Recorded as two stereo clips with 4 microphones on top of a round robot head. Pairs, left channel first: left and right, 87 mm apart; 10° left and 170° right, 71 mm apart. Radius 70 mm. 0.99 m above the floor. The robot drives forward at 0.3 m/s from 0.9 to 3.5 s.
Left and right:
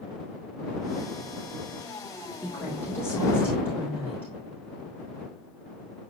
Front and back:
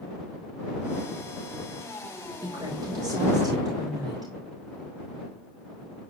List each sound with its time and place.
2.4 s a woman speaking: 155° left, 4 m; by 4.3 s 160° left, 4 m